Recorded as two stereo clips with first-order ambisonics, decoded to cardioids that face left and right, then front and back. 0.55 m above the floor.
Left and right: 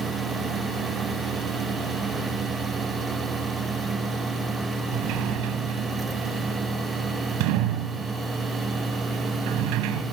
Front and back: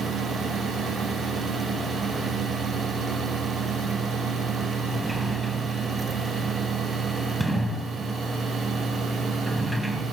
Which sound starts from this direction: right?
A sliding door, at 4.9 s.